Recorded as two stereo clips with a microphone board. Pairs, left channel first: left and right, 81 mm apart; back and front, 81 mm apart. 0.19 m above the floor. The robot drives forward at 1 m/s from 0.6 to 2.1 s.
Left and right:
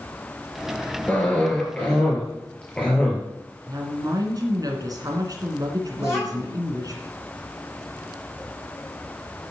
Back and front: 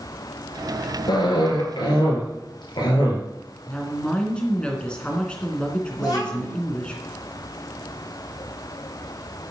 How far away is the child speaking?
About 6 m.